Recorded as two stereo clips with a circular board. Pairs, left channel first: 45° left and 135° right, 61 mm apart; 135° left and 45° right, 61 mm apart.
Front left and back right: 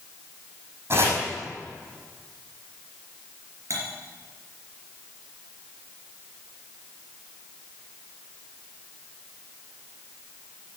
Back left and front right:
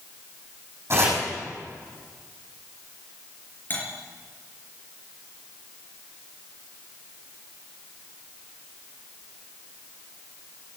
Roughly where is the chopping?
Right.